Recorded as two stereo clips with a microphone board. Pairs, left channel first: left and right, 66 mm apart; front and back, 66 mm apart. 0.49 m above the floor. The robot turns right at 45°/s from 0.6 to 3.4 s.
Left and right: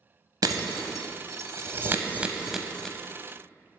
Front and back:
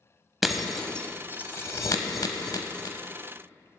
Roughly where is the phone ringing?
I don't hear a phone ringing.